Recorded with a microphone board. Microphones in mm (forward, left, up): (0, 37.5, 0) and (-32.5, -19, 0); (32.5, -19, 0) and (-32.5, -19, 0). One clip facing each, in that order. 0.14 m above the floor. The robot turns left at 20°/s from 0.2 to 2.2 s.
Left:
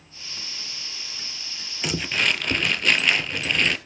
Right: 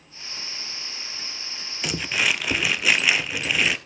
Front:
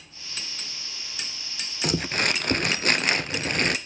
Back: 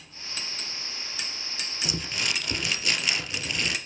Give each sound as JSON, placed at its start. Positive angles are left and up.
{"t": 1.8, "sound": "crumpling", "azimuth_deg": -25, "distance_m": 1.2}